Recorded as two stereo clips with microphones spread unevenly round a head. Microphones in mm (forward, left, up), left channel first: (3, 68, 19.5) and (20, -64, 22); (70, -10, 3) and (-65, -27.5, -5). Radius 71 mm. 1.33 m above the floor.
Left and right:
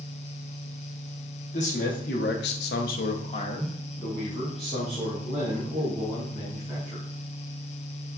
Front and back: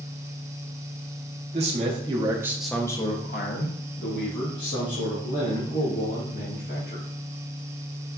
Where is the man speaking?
140° left, 1.1 m; by 7.0 s straight ahead, 3 m.